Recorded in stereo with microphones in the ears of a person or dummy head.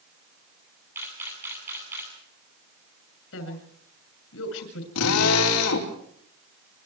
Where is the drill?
85° left, 5 m.